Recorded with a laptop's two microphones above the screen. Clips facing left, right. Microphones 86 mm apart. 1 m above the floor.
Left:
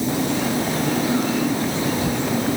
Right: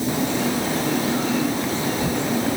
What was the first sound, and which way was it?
Only background noise.